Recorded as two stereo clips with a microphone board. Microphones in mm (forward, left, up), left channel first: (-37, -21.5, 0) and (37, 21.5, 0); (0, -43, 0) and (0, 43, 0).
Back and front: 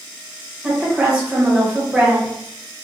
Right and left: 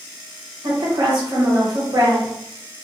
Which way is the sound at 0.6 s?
105° left.